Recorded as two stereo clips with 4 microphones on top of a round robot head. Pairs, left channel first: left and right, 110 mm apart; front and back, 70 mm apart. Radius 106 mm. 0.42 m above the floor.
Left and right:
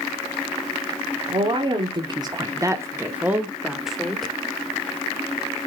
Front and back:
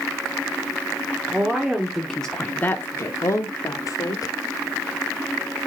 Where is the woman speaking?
110° right, 1.3 m; by 4.3 s 5° left, 1.5 m.